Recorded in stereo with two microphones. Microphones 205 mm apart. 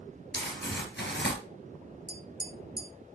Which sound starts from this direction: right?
Tapping, at 2.1 s.